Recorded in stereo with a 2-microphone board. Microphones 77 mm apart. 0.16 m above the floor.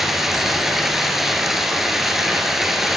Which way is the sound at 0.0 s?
5° right (ahead or behind).